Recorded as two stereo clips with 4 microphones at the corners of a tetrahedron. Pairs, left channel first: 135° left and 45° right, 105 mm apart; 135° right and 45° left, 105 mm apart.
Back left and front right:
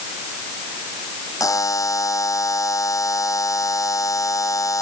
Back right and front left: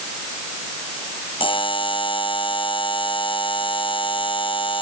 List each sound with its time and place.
1.4 s a buzzer: 170° right, 1.2 m